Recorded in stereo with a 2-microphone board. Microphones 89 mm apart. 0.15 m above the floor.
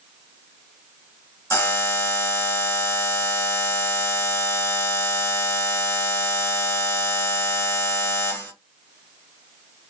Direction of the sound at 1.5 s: 20° left (ahead or behind).